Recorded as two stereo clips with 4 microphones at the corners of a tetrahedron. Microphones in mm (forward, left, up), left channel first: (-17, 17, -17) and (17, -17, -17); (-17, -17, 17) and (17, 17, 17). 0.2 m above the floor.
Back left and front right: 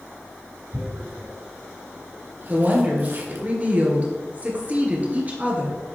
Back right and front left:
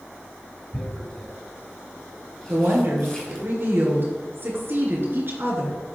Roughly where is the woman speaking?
Ahead.